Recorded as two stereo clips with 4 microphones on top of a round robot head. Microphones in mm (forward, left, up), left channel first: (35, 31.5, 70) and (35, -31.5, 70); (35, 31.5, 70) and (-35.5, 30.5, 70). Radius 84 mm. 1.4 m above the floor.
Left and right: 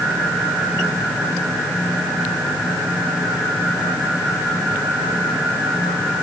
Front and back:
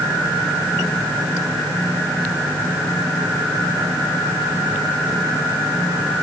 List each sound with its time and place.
Only background noise.